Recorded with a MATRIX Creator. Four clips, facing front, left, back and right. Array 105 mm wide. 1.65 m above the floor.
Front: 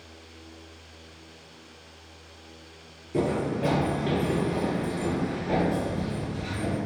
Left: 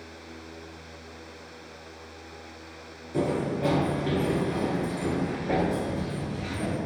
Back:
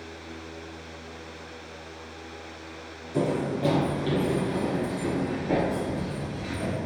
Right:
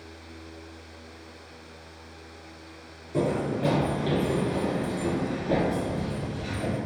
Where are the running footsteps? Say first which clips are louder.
Right 1 dB, even; 5° left, 1.9 m; by 6.8 s 120° left, 2 m.